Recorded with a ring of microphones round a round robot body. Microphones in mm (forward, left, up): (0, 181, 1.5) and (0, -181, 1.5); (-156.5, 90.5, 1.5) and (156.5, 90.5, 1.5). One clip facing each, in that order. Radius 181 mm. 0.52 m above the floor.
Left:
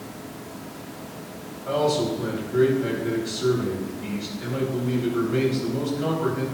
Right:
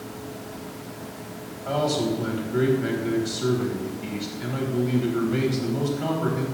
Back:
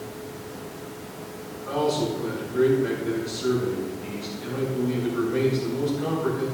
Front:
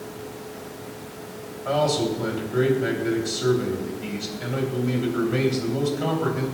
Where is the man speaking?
15° right, 3.5 m.